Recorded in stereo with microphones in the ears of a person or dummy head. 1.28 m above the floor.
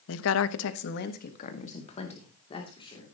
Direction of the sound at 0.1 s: 75° left (ahead or behind).